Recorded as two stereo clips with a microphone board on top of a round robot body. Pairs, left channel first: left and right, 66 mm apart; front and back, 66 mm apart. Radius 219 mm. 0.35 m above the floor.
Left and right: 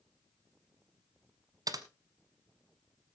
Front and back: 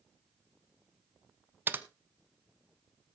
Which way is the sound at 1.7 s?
120° right.